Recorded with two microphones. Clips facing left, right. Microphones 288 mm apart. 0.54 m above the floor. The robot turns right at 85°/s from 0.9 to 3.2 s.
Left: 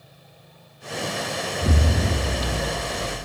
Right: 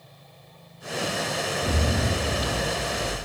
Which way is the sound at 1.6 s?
50° left.